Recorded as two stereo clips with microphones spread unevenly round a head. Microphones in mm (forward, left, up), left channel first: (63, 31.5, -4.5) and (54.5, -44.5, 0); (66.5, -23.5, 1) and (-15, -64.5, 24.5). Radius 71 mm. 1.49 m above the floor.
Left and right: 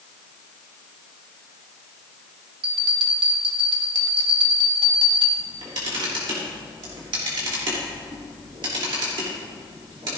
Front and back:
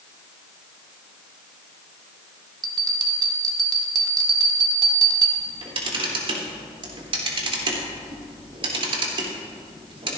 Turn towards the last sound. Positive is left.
turn(degrees=-135)